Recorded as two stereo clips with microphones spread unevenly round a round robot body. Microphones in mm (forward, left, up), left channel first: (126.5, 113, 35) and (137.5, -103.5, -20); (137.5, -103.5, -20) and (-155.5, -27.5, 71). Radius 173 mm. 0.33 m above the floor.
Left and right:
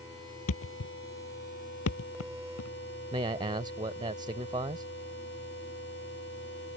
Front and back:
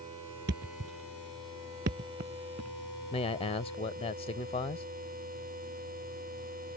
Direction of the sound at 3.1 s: 50° right.